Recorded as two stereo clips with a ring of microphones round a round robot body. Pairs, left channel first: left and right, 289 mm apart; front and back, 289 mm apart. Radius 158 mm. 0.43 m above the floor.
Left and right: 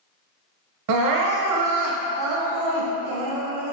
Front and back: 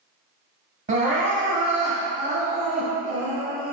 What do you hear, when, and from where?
0.9 s crying: 110° right, 0.7 m